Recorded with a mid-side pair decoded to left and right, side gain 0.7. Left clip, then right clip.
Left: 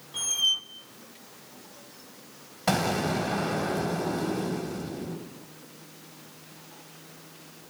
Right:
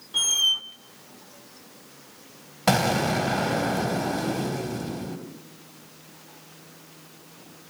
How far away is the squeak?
About 1.9 m.